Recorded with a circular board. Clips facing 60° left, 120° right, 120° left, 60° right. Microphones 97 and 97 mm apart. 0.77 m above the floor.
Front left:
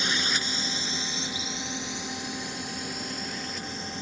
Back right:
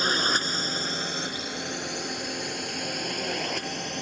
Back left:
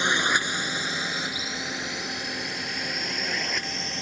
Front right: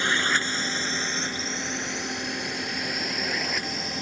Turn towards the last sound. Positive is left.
turn(degrees=-145)